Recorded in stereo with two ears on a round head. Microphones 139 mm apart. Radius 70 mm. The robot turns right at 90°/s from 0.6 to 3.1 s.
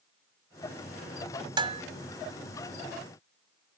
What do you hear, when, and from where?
1.6 s dishes clattering: 30° right (ahead or behind); by 1.8 s 50° right (ahead or behind)